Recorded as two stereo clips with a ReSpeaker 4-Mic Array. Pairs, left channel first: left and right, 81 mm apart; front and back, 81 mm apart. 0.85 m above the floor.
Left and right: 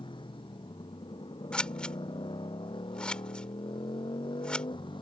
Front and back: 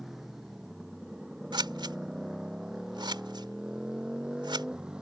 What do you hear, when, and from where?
0.0 s a motorcycle: 95° left; by 5.0 s 100° left
1.5 s scissors: 170° left